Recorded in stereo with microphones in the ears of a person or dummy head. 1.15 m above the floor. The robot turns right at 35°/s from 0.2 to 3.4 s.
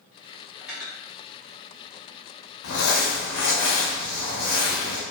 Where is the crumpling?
65° left (ahead or behind), 0.7 m; by 5.0 s 60° left (ahead or behind), 0.7 m.